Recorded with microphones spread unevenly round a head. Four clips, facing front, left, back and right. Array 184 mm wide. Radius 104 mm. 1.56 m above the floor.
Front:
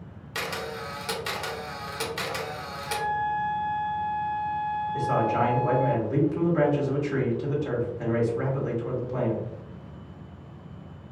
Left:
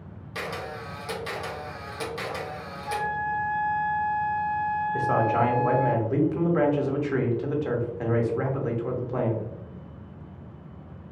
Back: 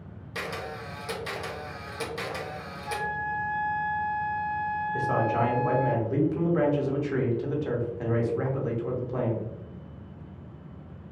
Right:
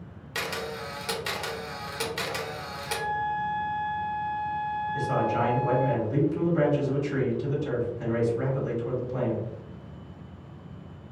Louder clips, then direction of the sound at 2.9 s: Left 1 dB, front 4 dB; 150° right.